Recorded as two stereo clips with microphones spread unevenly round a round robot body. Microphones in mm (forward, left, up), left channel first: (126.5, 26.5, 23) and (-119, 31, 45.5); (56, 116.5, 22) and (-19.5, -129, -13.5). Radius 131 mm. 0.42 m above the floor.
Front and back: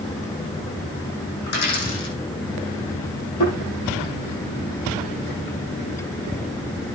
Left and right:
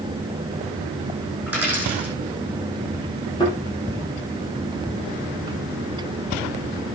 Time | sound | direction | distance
1.5 | a dropped coin | 20° right | 7.5 m
3.4 | a thud | 5° right | 7 m